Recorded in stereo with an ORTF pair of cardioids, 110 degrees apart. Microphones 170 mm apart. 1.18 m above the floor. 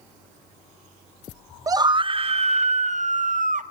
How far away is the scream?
About 0.8 m.